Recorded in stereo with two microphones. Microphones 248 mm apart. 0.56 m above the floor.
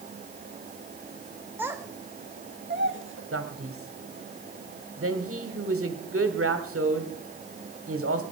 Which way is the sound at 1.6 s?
5° right (ahead or behind).